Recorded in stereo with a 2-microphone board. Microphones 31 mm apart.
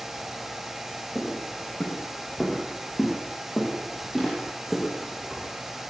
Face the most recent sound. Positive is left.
turn(degrees=-15)  # may be behind; listen again after turning